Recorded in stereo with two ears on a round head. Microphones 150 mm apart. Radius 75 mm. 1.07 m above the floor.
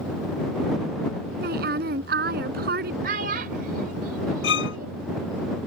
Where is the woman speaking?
60° right (ahead or behind).